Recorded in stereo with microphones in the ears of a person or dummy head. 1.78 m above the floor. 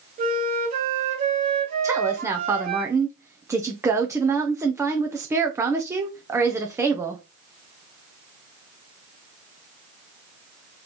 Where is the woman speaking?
10° right (ahead or behind), 0.6 m.